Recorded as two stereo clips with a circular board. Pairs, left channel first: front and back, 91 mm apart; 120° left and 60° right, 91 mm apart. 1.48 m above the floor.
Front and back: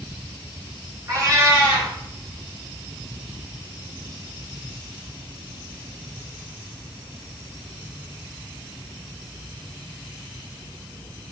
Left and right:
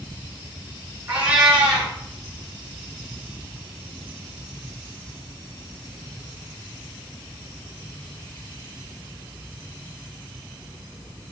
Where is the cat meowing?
125° right, 7 m.